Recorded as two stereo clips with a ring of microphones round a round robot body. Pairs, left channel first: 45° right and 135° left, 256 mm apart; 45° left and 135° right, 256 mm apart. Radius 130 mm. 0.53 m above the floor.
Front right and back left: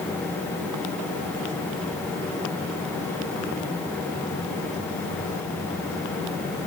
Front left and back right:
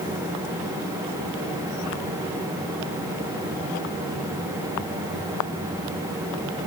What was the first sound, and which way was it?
Only background noise.